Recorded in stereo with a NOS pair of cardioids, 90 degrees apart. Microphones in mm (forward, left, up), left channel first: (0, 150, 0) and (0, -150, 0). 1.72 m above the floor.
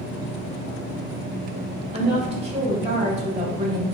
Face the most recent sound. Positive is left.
turn(degrees=-20)